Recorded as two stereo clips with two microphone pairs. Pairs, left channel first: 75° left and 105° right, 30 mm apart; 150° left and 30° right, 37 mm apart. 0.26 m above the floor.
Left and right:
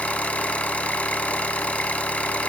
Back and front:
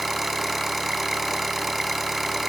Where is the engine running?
55° left, 0.7 m.